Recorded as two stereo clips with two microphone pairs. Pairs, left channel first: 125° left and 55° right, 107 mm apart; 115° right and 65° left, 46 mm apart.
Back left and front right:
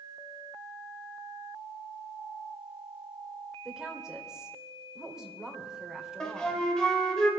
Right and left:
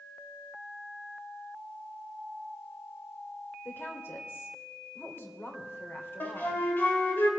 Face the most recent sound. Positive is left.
turn(degrees=-150)